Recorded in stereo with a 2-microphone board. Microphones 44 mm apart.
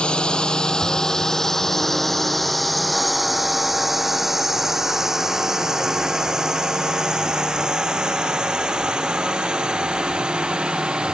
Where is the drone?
25° left (ahead or behind); by 11.2 s 20° right (ahead or behind).